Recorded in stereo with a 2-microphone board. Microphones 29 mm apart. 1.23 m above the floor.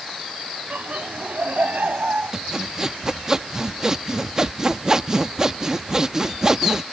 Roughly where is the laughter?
Right.